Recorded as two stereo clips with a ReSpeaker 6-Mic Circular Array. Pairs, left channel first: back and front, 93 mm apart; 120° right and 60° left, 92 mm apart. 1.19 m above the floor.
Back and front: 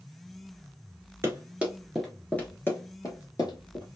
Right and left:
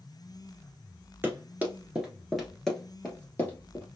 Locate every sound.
1.2 s running footsteps: 30° left, 1.3 m; by 3.9 s straight behind, 1.8 m